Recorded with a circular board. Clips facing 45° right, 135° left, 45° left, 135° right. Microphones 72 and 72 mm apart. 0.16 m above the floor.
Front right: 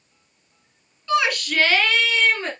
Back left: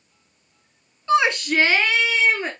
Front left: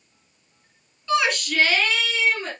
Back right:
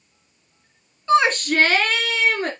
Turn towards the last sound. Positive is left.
turn(degrees=-150)